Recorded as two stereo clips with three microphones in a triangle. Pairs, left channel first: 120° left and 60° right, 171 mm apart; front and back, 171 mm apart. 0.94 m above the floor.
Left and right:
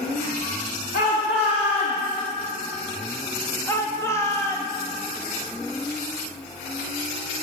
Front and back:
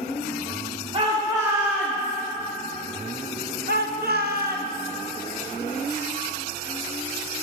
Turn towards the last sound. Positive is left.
turn(degrees=-165)